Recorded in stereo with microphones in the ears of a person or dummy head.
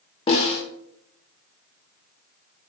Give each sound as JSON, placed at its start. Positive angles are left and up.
{"t": 0.3, "sound": "a snare drum", "side_deg": 30, "distance_m": 0.9}